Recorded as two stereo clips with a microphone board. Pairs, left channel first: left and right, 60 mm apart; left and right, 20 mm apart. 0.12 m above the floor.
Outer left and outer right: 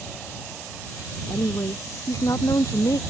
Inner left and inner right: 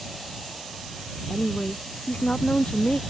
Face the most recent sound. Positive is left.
turn(degrees=70)  # may be behind; listen again after turning